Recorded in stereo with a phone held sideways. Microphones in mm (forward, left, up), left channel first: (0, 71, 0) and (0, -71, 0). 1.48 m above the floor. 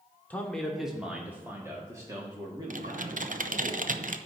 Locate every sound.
0.3 s a man speaking: 10° left (ahead or behind), 1.0 m; by 3.7 s 35° right (ahead or behind), 2.5 m
2.7 s typing on a keyboard: 65° right (ahead or behind), 0.6 m